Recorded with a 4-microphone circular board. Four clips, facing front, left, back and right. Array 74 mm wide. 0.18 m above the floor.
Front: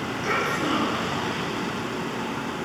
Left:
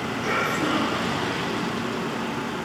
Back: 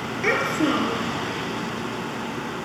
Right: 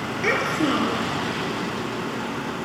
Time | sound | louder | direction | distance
0.2 | a child speaking | right 3 dB, back 4 dB | 145° right | 2.5 m